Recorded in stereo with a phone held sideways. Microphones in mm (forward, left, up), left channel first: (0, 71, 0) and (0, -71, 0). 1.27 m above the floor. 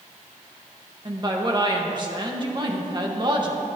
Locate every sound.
1.1 s a woman speaking: 30° right (ahead or behind), 1.6 m